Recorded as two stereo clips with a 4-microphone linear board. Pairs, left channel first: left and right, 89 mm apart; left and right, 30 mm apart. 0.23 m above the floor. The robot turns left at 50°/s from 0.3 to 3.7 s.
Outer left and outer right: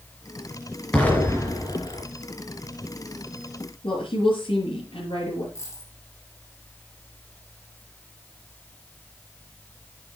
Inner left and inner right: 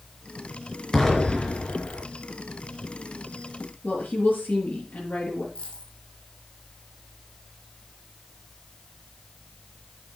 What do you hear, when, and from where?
0.9 s an explosion: 170° left, 3.5 m; by 2.0 s 115° left, 3.5 m
3.8 s a woman speaking: 75° left (ahead or behind), 5 m
5.5 s a dropped coin: 35° left (ahead or behind), 4 m